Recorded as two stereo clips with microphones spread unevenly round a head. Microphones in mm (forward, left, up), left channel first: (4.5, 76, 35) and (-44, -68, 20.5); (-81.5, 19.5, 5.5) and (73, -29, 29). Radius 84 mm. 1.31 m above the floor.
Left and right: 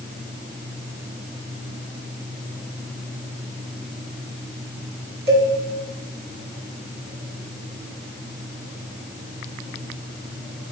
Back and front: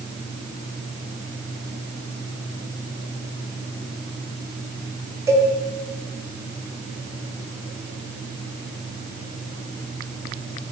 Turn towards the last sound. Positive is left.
turn(degrees=-85)